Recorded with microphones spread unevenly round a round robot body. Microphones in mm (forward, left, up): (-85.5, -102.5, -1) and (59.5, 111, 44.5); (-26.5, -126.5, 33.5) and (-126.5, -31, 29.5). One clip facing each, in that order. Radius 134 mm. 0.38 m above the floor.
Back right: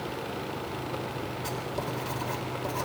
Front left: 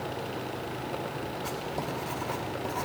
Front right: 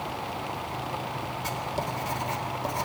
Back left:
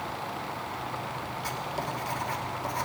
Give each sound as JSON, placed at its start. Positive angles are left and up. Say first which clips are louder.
{"t": 1.4, "sound": "writing", "louder": "even, front right 2 dB", "azimuth_deg": -100, "distance_m": 1.2}